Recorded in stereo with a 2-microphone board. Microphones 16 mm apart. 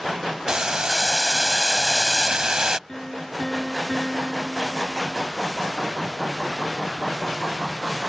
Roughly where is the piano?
Left.